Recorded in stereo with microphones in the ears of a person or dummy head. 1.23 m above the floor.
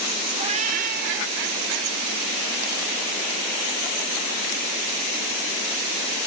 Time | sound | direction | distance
0.3 | a cat meowing | 30° right (ahead or behind) | ?